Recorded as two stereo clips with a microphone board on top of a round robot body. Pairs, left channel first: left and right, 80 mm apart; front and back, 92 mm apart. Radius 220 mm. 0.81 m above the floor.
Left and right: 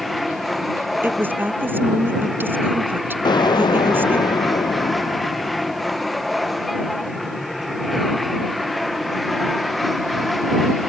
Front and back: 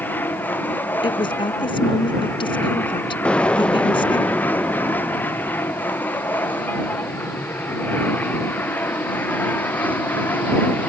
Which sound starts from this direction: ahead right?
A woman speaking, at 1.0 s.